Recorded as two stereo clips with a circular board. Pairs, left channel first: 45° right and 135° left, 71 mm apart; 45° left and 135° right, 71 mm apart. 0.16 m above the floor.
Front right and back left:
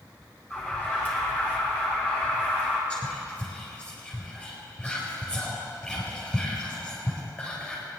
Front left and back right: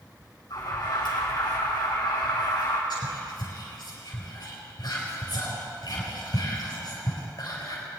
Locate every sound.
0.5 s an alarm: 20° left, 4.5 m
2.9 s whispering: 30° left, 4 m